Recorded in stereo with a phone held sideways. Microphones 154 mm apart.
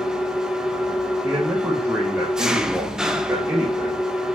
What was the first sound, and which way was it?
An engine running, 5° right (ahead or behind).